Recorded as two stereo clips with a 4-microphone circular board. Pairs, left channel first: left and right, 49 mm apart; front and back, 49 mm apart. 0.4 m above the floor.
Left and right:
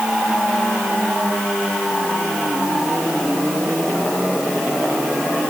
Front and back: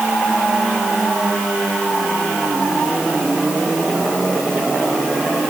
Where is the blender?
No blender in this recording.